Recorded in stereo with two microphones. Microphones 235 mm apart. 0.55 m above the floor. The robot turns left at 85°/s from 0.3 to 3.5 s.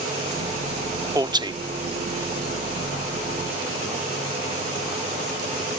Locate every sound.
1.1 s a man speaking: 15° right (ahead or behind); by 1.6 s 20° right (ahead or behind)